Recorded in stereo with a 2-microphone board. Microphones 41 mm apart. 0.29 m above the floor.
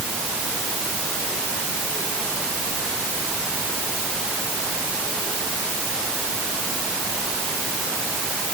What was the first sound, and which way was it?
Only background noise.